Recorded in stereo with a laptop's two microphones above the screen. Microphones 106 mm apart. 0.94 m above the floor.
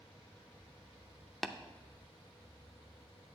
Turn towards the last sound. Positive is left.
turn(degrees=0)  # may be behind; listen again after turning